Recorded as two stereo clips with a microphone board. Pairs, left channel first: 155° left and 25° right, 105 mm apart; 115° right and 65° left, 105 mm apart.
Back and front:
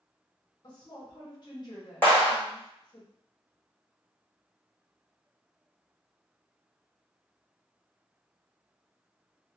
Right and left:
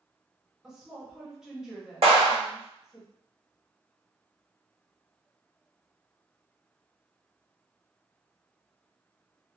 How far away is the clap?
About 1.5 m.